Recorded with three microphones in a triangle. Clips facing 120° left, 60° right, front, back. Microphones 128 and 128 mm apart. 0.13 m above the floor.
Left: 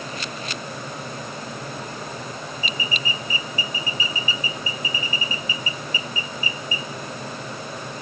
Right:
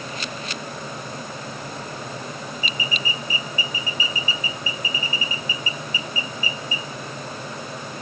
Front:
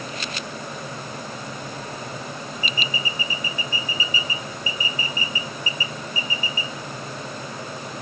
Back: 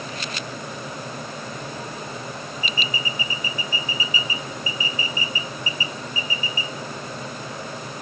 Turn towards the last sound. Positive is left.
No sound to turn to.